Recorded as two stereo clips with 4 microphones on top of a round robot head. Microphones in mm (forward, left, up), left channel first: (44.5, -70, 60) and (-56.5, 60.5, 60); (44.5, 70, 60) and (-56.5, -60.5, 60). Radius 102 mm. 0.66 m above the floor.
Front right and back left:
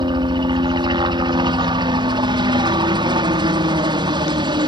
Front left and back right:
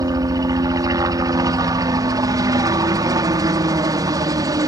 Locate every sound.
0.0 s a helicopter: 175° left